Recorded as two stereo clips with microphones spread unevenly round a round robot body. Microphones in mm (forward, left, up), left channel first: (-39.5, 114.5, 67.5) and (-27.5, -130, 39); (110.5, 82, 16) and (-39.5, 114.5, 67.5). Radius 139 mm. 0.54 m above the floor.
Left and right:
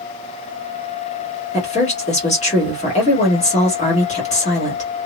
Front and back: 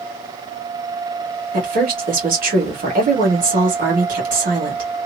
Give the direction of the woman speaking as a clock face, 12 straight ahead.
7 o'clock.